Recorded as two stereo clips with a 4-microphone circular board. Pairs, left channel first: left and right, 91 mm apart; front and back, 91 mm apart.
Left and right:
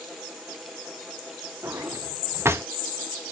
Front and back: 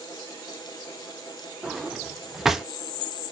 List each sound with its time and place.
1.6 s a drawer: 100° right, 0.7 m